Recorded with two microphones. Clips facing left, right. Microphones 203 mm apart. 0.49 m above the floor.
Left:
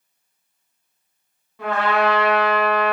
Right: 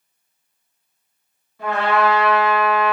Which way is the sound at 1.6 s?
85° left.